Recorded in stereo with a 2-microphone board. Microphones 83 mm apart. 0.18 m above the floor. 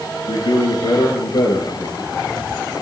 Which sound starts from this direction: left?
A man speaking, at 0.3 s.